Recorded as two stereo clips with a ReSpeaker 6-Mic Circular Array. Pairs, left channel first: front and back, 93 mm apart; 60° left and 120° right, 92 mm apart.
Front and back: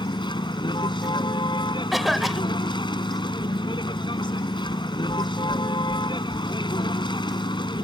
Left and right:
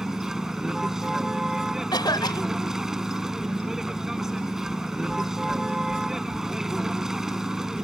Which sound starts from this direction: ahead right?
A vehicle, at 0.0 s.